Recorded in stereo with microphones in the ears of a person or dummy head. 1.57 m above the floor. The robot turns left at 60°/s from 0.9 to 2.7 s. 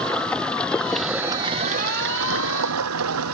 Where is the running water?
10° left; by 3.4 s 95° right.